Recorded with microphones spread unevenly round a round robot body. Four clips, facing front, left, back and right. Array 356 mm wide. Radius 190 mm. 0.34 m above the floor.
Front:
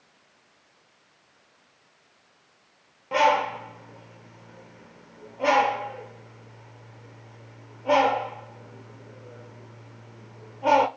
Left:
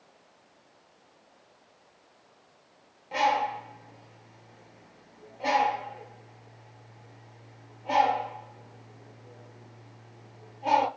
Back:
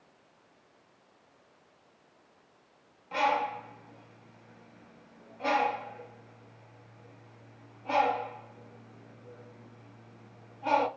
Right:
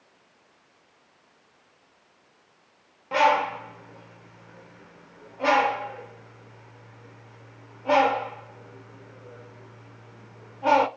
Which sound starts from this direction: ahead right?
A bird, at 3.1 s.